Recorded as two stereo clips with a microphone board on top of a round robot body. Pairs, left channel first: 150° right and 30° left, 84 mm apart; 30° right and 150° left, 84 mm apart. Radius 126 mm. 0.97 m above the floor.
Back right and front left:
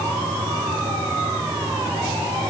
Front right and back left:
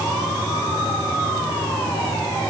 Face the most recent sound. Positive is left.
No sound to turn to.